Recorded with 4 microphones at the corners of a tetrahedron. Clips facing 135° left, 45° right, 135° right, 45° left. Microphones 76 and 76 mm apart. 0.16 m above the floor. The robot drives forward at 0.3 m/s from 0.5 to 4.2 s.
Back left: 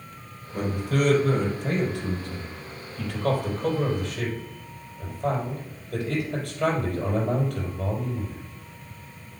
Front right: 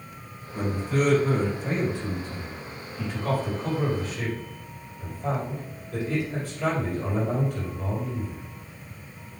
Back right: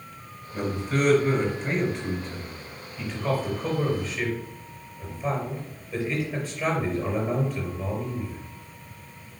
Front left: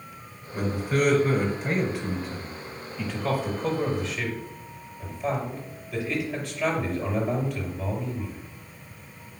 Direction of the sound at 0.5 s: 125° left.